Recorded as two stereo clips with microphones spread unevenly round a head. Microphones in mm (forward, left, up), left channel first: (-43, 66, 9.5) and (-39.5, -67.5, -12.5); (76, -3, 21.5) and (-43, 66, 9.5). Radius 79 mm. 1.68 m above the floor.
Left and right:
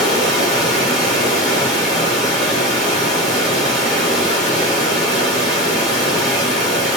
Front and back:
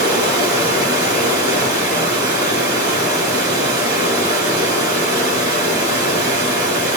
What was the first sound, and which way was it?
Running water, straight behind.